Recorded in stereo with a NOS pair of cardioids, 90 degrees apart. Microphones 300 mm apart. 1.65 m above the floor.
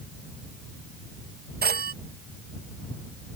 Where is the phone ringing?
35° right.